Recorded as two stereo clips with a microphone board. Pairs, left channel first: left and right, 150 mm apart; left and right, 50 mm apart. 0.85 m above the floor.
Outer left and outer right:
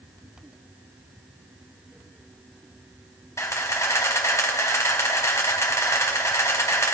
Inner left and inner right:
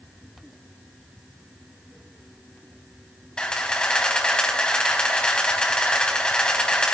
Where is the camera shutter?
20° left (ahead or behind), 4 m.